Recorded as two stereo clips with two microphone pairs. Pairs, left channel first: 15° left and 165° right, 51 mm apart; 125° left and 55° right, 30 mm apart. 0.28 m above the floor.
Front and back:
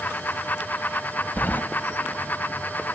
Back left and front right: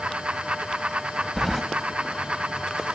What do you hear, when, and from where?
1.4 s keys jangling: 35° left, 1.2 m